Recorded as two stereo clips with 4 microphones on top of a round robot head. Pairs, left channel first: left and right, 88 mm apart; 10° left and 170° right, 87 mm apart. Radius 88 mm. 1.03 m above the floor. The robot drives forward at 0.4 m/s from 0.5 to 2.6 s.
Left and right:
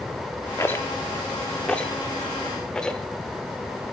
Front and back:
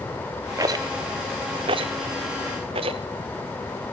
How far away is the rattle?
About 0.6 m.